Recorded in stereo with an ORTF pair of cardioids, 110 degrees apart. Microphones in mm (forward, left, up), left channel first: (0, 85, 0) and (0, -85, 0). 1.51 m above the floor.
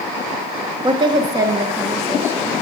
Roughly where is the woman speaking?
Ahead right.